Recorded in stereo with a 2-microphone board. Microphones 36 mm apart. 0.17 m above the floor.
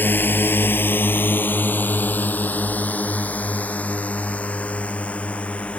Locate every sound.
0.0 s a drone: 60° left (ahead or behind); by 5.8 s 40° left (ahead or behind)